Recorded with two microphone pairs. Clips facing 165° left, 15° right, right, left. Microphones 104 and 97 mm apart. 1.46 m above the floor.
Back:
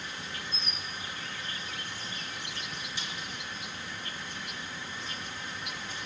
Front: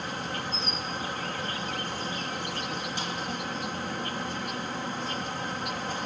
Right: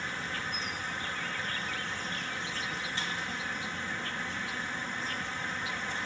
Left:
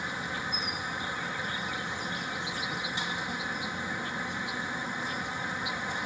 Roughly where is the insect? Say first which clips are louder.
Front 8 dB, left 2 dB; ahead.